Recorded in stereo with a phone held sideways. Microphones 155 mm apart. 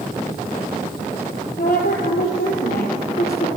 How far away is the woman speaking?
About 4 m.